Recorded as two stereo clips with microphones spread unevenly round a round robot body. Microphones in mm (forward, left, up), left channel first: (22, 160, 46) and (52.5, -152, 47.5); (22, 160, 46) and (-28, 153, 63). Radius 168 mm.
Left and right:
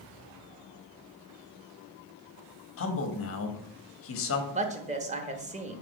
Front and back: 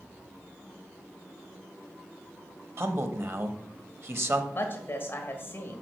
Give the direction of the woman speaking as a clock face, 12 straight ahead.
1 o'clock.